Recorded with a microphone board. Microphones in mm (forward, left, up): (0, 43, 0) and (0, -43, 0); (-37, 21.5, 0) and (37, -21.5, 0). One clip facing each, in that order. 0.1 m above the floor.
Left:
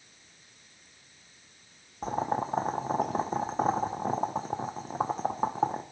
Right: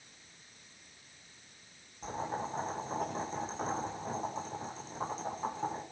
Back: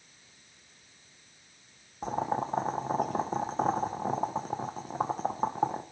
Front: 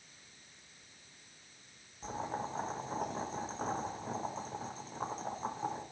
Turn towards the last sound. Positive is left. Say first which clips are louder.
# left 7 dB, back 8 dB
turn(degrees=125)